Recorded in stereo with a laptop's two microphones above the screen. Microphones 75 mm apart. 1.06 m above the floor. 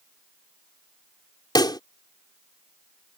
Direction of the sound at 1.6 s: 70° left (ahead or behind).